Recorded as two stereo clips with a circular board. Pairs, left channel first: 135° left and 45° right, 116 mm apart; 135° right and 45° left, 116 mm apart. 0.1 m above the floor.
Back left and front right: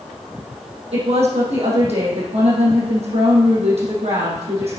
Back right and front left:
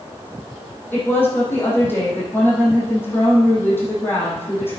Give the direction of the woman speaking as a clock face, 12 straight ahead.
2 o'clock.